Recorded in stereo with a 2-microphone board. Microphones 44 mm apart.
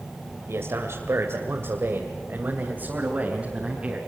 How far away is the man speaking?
About 2.5 m.